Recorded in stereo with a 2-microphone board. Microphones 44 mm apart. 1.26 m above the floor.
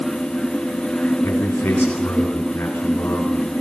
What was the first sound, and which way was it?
A man speaking, 65° left (ahead or behind).